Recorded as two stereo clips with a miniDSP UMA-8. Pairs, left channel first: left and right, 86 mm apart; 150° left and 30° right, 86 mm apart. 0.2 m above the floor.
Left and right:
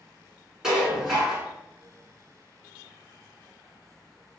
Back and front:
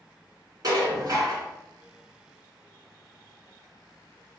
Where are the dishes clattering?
10° right, 1.3 m.